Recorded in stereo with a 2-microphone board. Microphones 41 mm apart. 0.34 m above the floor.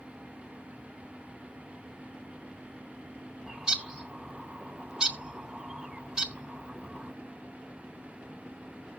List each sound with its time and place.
3.5 s a bird: 20° right (ahead or behind), 1.3 m